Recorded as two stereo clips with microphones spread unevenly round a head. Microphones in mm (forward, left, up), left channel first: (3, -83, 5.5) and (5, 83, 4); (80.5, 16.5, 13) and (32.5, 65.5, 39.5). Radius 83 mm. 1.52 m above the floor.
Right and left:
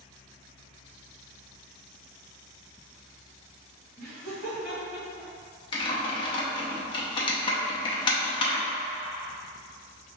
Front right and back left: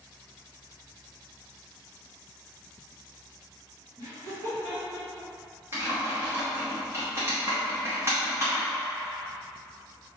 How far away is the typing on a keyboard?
About 0.7 m.